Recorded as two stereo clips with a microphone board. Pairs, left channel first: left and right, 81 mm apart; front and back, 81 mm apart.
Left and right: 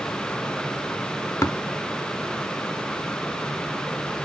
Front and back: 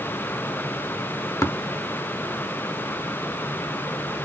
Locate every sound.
1.4 s tapping: 45° left, 0.7 m